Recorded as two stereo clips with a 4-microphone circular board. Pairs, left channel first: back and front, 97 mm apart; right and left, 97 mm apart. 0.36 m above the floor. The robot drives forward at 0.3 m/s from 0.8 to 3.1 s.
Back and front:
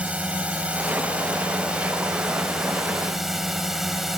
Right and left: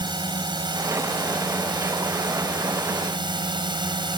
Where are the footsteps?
I don't hear footsteps.